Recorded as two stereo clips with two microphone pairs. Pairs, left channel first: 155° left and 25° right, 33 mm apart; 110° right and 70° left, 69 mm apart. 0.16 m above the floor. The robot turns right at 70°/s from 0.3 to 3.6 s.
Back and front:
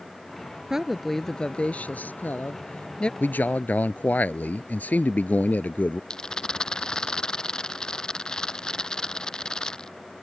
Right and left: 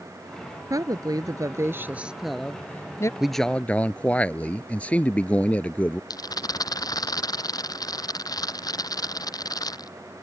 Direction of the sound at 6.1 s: 135° right.